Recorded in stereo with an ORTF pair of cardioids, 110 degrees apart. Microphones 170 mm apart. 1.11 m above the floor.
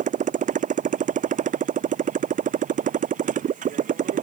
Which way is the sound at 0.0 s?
50° right.